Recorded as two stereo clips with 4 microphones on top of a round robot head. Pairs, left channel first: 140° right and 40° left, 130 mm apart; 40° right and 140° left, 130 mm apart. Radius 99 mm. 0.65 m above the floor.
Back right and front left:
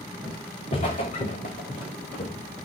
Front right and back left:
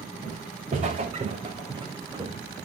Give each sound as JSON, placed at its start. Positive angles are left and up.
{"t": 0.2, "sound": "footsteps", "azimuth_deg": 175, "distance_m": 3.0}